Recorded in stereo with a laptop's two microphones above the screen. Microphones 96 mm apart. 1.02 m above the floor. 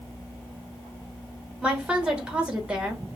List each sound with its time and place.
1.6 s a woman speaking: 10° right (ahead or behind), 1.2 m